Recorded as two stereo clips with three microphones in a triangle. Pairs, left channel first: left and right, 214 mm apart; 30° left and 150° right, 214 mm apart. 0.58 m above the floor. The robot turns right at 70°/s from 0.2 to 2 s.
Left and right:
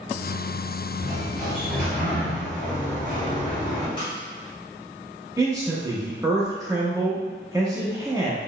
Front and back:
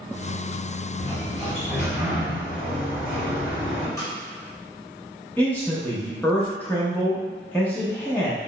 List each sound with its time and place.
1.0 s a sliding door: 50° right, 1.7 m; by 3.9 s 20° left, 1.7 m
4.0 s a snare drum: 75° left, 1.0 m
5.4 s a man speaking: 40° right, 0.6 m